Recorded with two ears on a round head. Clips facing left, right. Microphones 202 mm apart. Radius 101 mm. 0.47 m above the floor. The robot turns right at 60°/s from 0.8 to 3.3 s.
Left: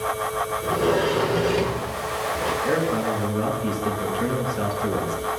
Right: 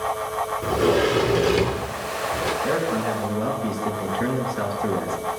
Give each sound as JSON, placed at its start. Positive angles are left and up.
{"t": 0.6, "sound": "a sliding door", "azimuth_deg": -140, "distance_m": 0.8}
{"t": 2.6, "sound": "a man speaking", "azimuth_deg": -30, "distance_m": 4.5}